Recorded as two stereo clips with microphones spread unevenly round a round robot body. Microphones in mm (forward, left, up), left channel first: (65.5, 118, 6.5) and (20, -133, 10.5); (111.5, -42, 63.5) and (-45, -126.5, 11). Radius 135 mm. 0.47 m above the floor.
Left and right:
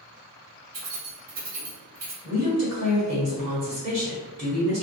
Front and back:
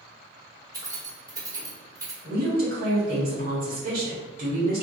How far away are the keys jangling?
About 1.4 m.